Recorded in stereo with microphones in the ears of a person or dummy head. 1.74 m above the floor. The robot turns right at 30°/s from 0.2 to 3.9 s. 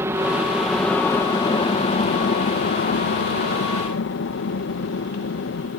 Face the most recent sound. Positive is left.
turn(degrees=95)